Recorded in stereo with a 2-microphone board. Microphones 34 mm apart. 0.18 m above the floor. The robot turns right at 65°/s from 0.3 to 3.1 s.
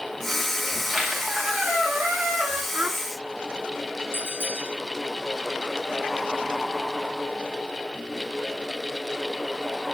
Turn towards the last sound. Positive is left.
turn(degrees=-75)  # may be behind; listen again after turning